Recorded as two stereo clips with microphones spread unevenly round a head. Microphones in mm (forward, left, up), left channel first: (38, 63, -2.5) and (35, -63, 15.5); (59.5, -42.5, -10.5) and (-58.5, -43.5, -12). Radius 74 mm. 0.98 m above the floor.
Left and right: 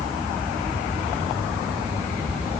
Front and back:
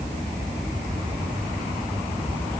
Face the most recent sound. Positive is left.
No sound to turn to.